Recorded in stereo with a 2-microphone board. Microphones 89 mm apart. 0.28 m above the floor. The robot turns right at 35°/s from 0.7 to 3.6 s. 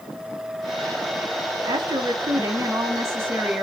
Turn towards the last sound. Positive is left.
turn(degrees=-20)